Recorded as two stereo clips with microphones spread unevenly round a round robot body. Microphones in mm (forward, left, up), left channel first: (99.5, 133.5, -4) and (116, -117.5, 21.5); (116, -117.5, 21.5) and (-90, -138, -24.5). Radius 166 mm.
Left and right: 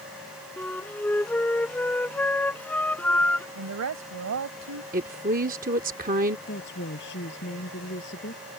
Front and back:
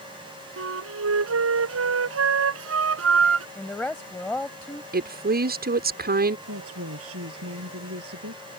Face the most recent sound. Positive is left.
turn(degrees=150)